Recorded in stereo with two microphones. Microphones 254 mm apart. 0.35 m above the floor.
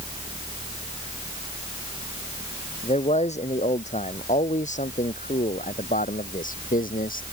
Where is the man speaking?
25° left (ahead or behind); by 7.2 s 35° left (ahead or behind).